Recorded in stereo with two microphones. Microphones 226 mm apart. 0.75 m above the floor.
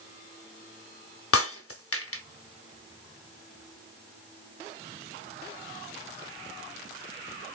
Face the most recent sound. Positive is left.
turn(degrees=75)  # may be behind; listen again after turning